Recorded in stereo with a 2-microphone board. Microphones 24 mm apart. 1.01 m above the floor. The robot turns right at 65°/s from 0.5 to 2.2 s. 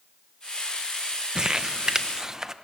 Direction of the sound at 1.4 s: 30° right (ahead or behind).